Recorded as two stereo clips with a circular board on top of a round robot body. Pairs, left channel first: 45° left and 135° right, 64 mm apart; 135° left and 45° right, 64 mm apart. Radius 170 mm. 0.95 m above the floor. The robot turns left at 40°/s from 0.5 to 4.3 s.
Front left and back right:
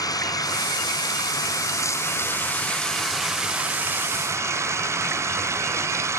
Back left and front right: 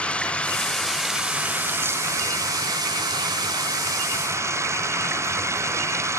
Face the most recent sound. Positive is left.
turn(degrees=-90)